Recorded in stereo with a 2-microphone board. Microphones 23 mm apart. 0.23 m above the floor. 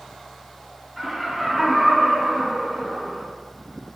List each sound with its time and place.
1.0 s laughter: 5° right (ahead or behind), 3 m